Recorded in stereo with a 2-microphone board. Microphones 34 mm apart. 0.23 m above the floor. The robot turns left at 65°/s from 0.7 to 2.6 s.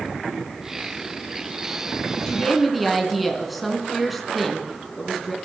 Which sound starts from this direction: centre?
A woman speaking, at 2.3 s.